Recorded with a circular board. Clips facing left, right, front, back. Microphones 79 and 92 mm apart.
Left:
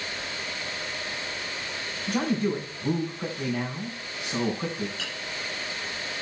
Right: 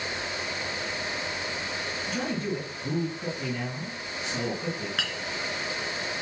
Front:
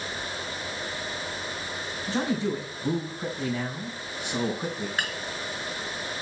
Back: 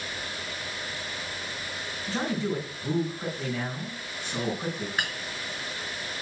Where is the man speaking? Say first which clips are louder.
Left 6 dB, front 2 dB; 75° left, 4 m.